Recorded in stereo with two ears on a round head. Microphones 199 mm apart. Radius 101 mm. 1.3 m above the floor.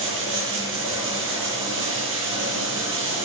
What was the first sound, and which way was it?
Running water, 55° right (ahead or behind).